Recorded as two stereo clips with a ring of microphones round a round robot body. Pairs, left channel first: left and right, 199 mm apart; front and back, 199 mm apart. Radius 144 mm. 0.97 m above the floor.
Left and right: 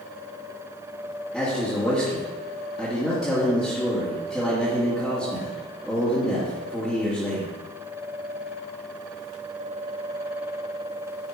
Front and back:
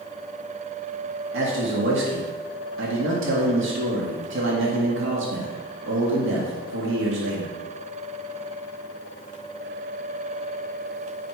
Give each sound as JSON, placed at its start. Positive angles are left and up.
{"t": 1.3, "sound": "a man speaking", "azimuth_deg": 180, "distance_m": 1.7}